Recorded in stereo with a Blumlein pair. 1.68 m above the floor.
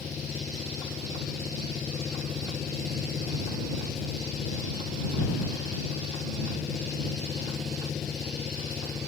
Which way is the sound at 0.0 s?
20° left.